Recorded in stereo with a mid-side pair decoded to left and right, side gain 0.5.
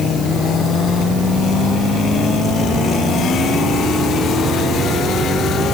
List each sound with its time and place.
Only background noise.